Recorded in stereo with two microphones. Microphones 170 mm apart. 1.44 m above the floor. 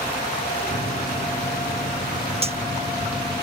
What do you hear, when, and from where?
0.7 s a microwave: 70° right (ahead or behind)
2.4 s cutlery clinking: 35° right (ahead or behind)